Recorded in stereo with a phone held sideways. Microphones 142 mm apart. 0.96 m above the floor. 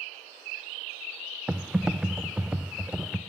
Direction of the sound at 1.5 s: 5° right (ahead or behind).